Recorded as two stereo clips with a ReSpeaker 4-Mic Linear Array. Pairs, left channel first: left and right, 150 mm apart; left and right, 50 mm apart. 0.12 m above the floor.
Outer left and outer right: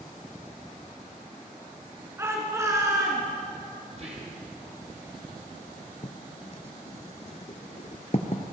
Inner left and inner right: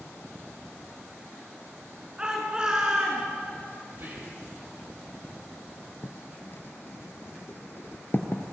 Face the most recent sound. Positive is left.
turn(degrees=50)  # may be behind; listen again after turning